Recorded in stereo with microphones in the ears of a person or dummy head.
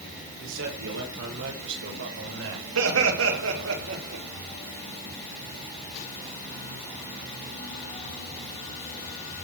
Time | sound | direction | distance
0.4 | a man speaking | 80° right | 5.5 m
2.8 | laughter | 80° right | 3.5 m